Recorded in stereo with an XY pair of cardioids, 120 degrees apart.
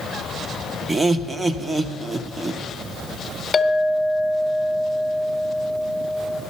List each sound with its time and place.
0.9 s laughter: 20° right, 1.0 m
3.5 s a clink: 25° left, 1.2 m